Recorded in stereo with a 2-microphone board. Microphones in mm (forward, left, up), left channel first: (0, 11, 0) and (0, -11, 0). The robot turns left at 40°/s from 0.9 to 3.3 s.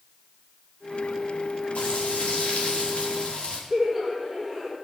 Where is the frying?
115° left, 4.5 m; by 3.6 s 50° left, 4.5 m.